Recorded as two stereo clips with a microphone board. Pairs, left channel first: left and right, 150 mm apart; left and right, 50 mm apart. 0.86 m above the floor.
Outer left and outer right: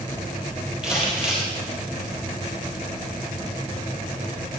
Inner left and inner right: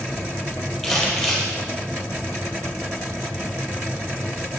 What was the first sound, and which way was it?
Crumpling, 5° right (ahead or behind).